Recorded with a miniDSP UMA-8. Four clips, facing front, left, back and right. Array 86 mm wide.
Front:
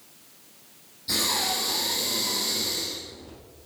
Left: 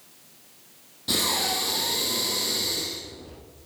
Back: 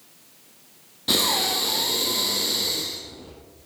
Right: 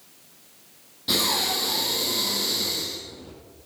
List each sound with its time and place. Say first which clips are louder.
1.1 s breathing: right 1 dB, back 4 dB; 175° right, 4.5 m